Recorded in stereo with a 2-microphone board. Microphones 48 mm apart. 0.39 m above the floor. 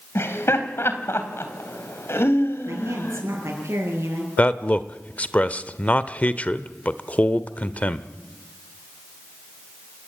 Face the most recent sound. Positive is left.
turn(degrees=30)  # may be behind; listen again after turning